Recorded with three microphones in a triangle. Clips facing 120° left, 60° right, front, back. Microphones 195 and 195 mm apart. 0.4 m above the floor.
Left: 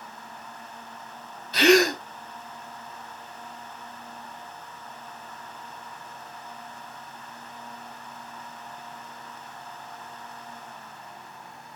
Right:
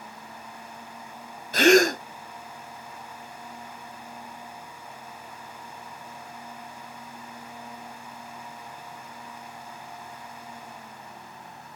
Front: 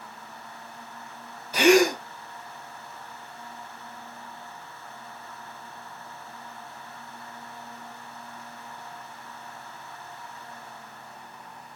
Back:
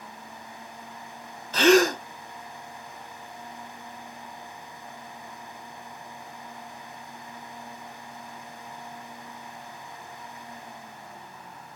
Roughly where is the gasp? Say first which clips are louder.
Right 1 dB, even; right.